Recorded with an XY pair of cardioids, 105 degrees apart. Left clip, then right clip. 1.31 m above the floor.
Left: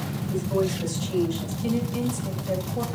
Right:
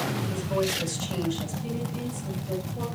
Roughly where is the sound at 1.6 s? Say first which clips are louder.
Left 6 dB; ahead left.